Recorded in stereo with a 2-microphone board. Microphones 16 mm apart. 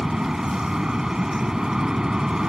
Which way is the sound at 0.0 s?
40° right (ahead or behind).